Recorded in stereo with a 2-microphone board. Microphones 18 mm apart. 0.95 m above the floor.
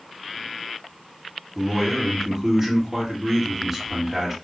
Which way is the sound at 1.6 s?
10° right (ahead or behind).